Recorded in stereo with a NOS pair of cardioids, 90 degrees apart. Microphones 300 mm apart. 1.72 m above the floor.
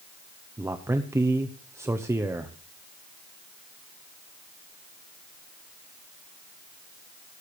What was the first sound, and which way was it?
A man speaking, 10° right.